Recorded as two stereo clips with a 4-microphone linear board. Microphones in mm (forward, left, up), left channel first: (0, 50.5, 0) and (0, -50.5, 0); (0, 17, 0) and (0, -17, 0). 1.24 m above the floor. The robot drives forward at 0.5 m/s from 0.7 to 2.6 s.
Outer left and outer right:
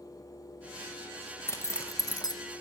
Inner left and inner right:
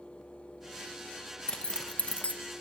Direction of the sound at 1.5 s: 25° left (ahead or behind).